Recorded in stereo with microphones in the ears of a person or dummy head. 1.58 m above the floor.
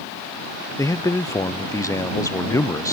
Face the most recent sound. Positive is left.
turn(degrees=15)  # may be behind; listen again after turning